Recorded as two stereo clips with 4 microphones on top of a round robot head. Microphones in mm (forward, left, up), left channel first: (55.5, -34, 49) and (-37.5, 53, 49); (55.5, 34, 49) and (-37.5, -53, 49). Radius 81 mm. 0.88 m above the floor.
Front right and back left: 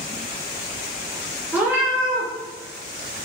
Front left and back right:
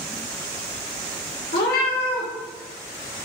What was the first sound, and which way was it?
A cat meowing, 60° left.